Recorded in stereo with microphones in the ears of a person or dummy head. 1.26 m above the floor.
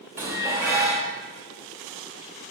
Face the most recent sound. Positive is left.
turn(degrees=-10)  # may be behind; listen again after turning